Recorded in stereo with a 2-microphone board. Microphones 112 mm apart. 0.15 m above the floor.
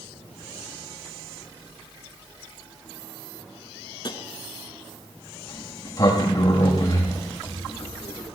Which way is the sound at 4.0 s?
40° left (ahead or behind).